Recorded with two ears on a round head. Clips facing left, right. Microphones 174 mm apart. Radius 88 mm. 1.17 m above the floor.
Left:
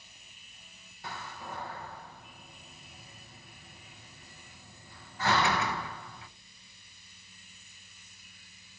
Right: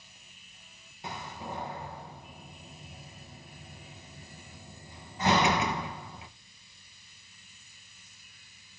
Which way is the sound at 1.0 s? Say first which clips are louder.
Right 3 dB; 15° right (ahead or behind).